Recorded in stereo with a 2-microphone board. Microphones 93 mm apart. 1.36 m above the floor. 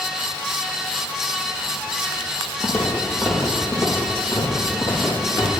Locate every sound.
2.6 s footsteps: 15° left (ahead or behind), 1.9 m; by 5.5 s 20° left (ahead or behind), 3 m